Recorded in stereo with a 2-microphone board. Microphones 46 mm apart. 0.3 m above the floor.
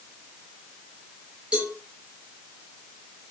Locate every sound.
1.5 s a cowbell: 20° right (ahead or behind), 5 m